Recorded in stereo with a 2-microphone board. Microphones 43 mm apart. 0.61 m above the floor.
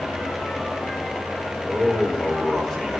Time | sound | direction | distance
1.6 | a man speaking | 10° left (ahead or behind) | 4 m